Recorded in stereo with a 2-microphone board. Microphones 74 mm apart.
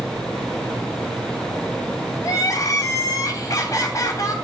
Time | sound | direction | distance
2.2 | crying | 50° left (ahead or behind) | 2.5 m